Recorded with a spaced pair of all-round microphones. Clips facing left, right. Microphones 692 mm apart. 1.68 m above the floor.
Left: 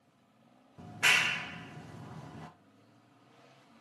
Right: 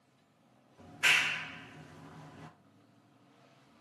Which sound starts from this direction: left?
A clap, at 0.8 s.